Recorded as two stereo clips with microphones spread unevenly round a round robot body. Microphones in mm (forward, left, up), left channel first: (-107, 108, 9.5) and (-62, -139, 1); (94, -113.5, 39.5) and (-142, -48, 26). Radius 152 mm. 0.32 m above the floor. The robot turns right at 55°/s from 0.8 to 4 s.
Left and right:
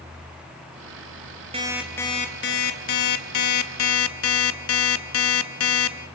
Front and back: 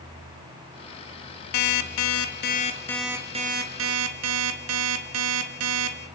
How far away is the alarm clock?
About 1.7 m.